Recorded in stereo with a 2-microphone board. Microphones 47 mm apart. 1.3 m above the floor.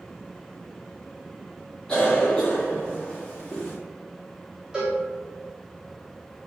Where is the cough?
20° left (ahead or behind), 0.5 m.